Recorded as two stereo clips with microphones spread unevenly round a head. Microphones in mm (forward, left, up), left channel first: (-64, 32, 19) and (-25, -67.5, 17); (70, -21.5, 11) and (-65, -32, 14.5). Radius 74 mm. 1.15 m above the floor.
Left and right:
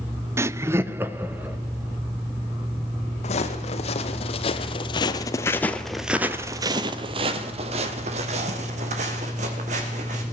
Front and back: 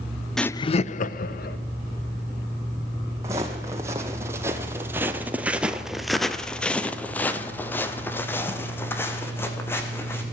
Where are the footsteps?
115° left, 2.5 m; by 10.2 s 70° right, 4 m.